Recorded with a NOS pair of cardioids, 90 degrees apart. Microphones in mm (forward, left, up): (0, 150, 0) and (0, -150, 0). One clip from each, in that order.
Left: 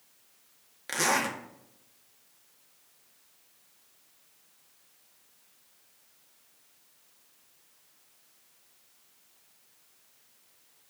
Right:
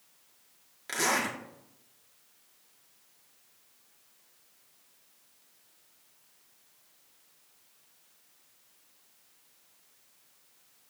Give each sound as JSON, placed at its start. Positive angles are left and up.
{"t": 0.9, "sound": "a zipper", "azimuth_deg": 20, "distance_m": 1.9}